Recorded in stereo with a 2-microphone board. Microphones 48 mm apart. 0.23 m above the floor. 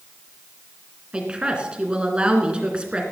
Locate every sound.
1.1 s a woman speaking: 20° right (ahead or behind), 2.5 m